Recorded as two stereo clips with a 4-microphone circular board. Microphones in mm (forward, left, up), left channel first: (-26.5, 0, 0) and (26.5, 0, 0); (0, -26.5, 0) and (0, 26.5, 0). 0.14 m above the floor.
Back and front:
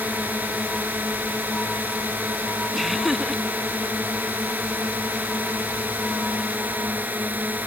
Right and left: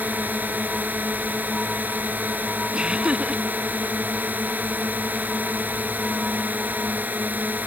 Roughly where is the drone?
Ahead left.